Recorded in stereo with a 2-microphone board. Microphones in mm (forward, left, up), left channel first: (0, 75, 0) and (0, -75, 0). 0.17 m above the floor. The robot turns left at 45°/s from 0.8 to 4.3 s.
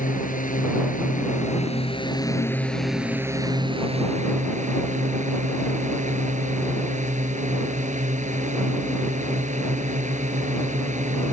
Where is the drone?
90° left; by 11.3 s 65° right.